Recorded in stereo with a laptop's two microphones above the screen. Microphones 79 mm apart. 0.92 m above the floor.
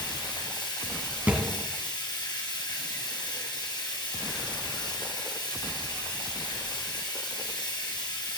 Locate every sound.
0.0 s running water: 65° left (ahead or behind), 2.5 m
1.3 s a thud: 15° right (ahead or behind), 2 m